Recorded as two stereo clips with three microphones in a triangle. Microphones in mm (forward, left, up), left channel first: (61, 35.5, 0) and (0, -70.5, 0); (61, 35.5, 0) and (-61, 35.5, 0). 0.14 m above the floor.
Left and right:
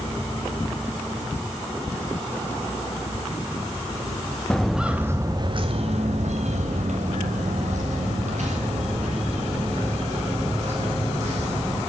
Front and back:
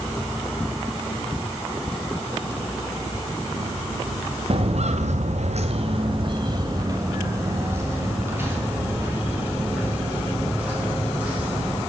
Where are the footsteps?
145° left, 0.8 m; by 11.8 s 100° right, 4.5 m.